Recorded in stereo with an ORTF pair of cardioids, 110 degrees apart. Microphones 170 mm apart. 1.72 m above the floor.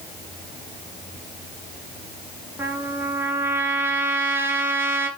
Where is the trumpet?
15° right, 2.5 m.